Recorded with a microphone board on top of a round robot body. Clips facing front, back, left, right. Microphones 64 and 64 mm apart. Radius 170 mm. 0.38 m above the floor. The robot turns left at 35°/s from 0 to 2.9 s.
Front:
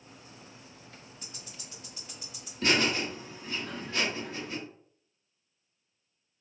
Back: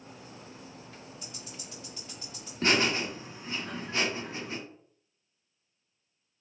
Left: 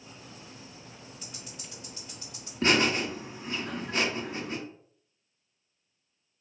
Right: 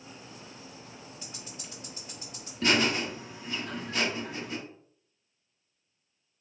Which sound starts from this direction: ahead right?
Ticking, at 1.2 s.